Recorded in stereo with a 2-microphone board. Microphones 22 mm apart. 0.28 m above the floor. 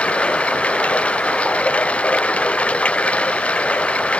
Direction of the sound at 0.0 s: 85° left.